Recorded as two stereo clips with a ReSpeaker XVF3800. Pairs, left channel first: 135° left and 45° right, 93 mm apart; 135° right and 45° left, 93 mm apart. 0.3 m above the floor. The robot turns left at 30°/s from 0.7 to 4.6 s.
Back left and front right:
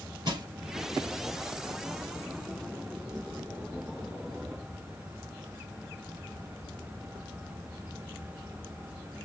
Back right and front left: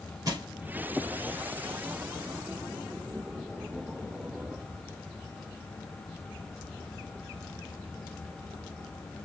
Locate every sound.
0.2 s crushing: 5° right, 2.5 m